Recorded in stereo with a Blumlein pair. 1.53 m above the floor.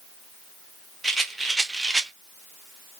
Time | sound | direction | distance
1.0 | a rattle | 10° right | 0.8 m